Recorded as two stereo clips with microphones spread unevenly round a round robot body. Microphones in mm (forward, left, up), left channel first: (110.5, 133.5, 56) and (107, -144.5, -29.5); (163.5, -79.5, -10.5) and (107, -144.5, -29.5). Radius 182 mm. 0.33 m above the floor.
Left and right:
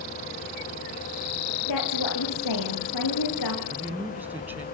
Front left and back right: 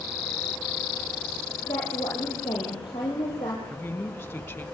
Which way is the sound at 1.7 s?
115° left.